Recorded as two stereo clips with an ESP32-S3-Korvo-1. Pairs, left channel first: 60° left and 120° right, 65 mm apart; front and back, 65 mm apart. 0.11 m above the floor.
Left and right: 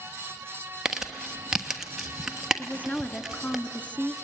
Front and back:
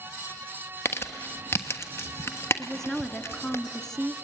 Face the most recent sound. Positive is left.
turn(degrees=65)